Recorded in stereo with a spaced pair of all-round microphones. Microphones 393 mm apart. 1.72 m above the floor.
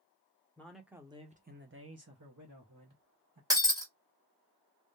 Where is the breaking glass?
10° right (ahead or behind), 1.2 m.